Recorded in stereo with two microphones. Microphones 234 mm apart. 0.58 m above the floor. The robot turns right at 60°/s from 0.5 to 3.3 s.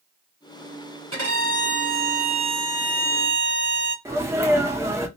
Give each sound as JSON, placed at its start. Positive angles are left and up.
{"t": 1.1, "sound": "a violin", "azimuth_deg": -110, "distance_m": 3.0}
{"t": 4.0, "sound": "a sneeze", "side_deg": -10, "distance_m": 1.0}